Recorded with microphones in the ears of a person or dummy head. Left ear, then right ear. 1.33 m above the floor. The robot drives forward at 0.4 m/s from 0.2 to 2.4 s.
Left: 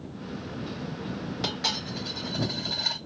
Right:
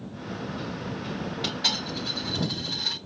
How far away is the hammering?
I don't hear hammering.